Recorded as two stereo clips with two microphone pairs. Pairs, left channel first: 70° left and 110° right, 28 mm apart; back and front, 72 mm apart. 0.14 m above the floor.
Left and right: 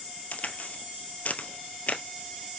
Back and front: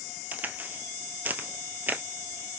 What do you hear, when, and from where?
0.3 s a crack: 65° left, 1.1 m